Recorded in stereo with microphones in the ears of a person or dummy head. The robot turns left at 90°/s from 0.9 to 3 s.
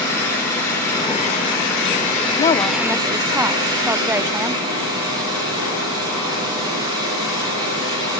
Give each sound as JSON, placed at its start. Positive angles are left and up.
{"t": 0.0, "sound": "an engine running", "azimuth_deg": 165, "distance_m": 9.5}
{"t": 2.4, "sound": "a woman speaking", "azimuth_deg": 45, "distance_m": 0.5}